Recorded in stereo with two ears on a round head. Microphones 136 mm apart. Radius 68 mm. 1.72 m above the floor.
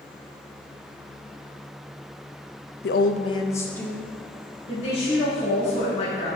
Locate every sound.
2.8 s a woman speaking: 75° left (ahead or behind), 0.6 m; by 4.0 s 5° left (ahead or behind), 1.7 m
4.7 s a woman speaking: 40° left (ahead or behind), 2.5 m